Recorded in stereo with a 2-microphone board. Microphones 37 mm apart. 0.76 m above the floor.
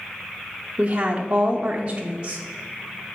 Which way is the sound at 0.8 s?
30° right (ahead or behind).